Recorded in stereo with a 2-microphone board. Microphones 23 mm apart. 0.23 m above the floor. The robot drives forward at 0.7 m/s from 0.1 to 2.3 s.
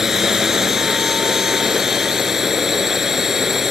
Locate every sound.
0.0 s a drone: 20° right (ahead or behind); by 3.7 s 15° right (ahead or behind)